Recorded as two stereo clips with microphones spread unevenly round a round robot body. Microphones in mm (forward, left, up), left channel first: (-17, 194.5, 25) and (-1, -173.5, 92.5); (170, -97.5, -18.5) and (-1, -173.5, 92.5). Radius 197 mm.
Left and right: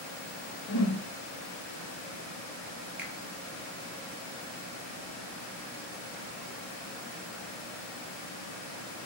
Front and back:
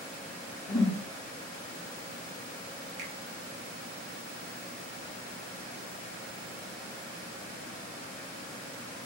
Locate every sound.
0.7 s a whoosh: 60° left, 1.8 m
3.0 s a finger snap: straight behind, 0.7 m